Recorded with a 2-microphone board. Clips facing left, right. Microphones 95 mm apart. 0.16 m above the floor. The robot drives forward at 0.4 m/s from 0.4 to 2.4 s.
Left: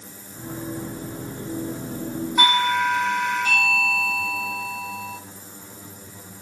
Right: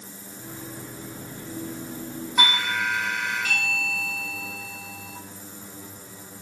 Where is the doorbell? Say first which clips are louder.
Left 6 dB; 5° left (ahead or behind), 1.6 m.